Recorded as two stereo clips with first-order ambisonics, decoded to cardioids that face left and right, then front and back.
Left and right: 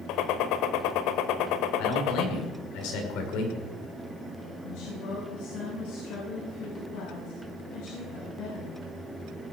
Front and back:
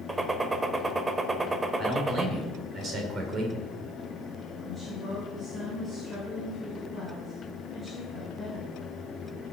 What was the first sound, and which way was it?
A gunshot, 105° left.